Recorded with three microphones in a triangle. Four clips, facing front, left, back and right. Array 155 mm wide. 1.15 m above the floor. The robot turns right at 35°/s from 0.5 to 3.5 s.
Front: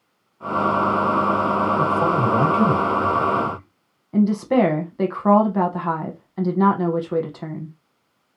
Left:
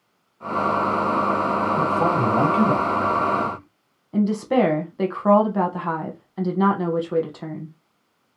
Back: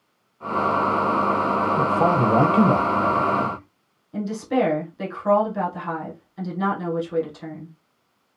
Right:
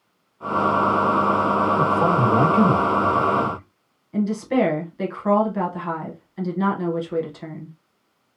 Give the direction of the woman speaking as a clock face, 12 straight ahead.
11 o'clock.